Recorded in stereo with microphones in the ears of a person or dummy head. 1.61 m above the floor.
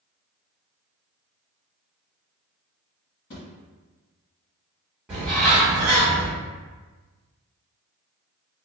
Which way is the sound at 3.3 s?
45° left (ahead or behind).